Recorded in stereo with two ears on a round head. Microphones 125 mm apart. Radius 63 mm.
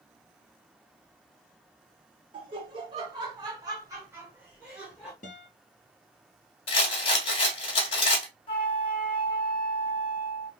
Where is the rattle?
40° left (ahead or behind), 1.4 m.